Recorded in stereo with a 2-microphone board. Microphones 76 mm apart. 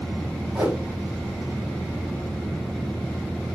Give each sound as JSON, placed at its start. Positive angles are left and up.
{"t": 0.6, "sound": "a whoosh", "side_deg": -15, "distance_m": 1.3}